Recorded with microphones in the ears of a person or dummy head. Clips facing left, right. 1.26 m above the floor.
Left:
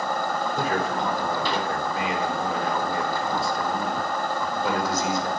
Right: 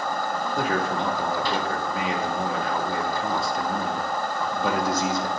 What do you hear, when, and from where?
0.6 s a man speaking: 60° right (ahead or behind), 2 m